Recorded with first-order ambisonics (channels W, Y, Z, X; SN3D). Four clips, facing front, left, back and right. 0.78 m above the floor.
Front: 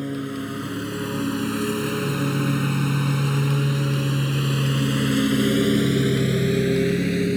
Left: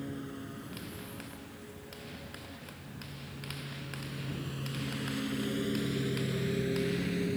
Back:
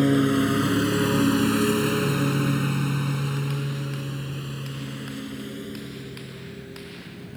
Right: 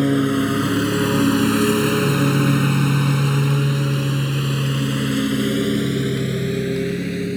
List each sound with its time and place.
0.0 s a lawn mower: 120° right; by 7.4 s 25° right